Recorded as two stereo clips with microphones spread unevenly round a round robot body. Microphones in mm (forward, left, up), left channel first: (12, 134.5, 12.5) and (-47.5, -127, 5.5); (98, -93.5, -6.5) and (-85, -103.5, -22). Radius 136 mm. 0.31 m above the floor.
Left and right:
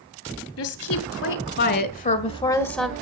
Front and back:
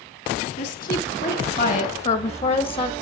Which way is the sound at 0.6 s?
55° left.